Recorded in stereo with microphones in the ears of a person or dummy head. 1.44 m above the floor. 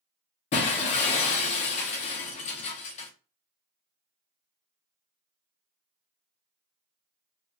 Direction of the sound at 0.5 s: 35° left (ahead or behind).